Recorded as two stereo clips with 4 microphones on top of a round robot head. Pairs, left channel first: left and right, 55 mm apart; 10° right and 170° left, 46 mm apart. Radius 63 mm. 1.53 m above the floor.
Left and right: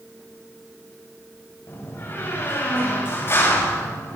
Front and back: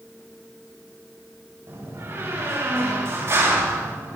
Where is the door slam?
135° left, 5.5 m.